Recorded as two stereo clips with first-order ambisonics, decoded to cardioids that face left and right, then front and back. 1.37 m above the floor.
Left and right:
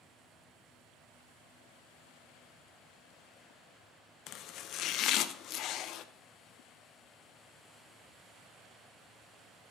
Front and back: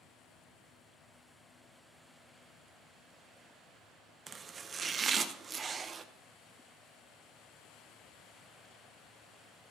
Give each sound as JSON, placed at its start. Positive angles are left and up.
{"t": 4.3, "sound": "chopping", "azimuth_deg": 120, "distance_m": 0.5}